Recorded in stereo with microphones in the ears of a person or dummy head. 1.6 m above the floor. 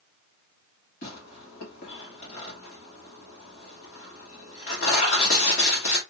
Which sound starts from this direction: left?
Tearing paper, at 1.0 s.